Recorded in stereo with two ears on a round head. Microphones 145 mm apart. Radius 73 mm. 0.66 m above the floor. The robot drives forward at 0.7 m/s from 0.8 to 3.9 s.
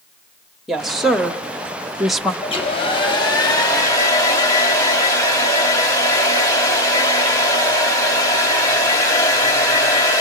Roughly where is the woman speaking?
Centre.